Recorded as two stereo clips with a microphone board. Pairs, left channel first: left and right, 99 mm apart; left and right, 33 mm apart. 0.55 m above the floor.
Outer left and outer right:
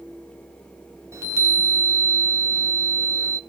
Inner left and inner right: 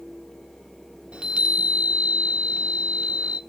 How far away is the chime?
About 0.5 m.